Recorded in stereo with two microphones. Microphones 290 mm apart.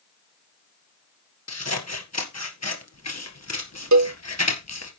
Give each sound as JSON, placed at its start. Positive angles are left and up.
{"t": 1.5, "sound": "scissors", "side_deg": 60, "distance_m": 1.8}
{"t": 3.9, "sound": "a cowbell", "side_deg": -70, "distance_m": 0.7}